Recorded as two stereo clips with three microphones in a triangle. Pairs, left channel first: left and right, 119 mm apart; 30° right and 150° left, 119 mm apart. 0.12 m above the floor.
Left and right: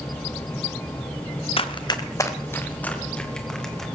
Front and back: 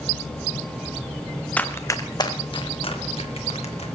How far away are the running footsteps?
About 1.4 m.